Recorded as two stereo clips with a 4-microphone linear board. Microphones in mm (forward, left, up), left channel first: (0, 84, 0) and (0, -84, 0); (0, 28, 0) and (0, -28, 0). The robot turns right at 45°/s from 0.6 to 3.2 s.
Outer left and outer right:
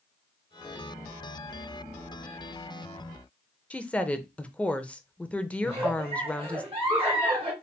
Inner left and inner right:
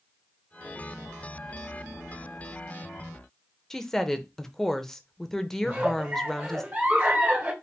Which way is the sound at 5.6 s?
30° right (ahead or behind).